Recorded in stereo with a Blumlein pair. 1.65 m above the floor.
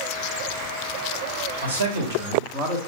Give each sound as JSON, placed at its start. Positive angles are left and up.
{"t": 1.6, "sound": "a man speaking", "azimuth_deg": -65, "distance_m": 1.8}